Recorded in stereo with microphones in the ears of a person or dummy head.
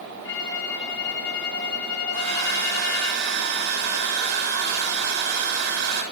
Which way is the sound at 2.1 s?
60° right (ahead or behind).